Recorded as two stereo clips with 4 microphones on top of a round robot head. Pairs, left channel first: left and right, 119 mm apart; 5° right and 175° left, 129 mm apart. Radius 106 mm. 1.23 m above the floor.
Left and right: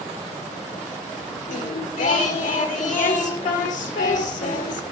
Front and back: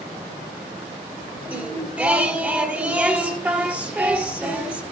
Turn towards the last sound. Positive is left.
turn(degrees=95)